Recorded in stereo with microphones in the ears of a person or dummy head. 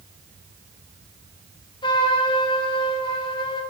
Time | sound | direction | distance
1.8 | a trumpet | 25° left (ahead or behind) | 0.7 m